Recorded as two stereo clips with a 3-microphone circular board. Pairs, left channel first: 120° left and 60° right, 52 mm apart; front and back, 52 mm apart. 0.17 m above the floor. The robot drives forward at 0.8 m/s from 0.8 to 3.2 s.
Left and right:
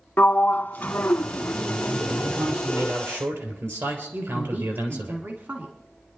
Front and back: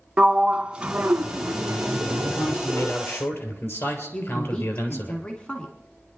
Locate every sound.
0.2 s a sliding door: 125° left, 0.5 m; by 2.9 s 170° left, 2.0 m
2.3 s a man speaking: 40° right, 3.5 m; by 5.1 s 45° right, 3 m
4.1 s a woman speaking: 60° right, 1.8 m